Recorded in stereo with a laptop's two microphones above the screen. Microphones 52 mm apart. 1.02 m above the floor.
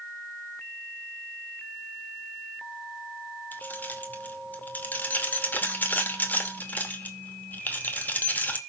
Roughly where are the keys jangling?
Left.